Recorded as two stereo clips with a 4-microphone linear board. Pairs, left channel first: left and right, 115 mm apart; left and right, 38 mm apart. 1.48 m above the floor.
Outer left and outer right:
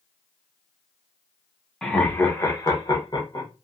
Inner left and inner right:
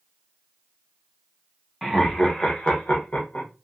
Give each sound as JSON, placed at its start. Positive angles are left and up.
{"t": 1.8, "sound": "laughter", "side_deg": 5, "distance_m": 0.9}